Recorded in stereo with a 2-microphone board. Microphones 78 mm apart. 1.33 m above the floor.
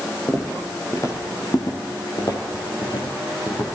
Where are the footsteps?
30° left (ahead or behind), 1.8 m; by 3.6 s 65° left (ahead or behind), 3 m.